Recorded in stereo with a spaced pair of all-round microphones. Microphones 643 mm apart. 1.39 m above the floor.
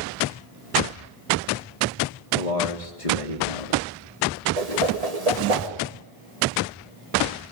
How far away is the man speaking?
About 2 m.